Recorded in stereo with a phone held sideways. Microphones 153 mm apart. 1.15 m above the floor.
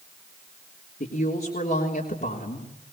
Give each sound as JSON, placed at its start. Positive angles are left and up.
{"t": 1.0, "sound": "a woman speaking", "side_deg": 70, "distance_m": 3.5}